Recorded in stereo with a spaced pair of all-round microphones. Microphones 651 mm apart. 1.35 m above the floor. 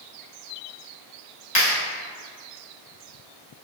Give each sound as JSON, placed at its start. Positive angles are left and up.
{"t": 1.6, "sound": "a clap", "side_deg": 75, "distance_m": 2.5}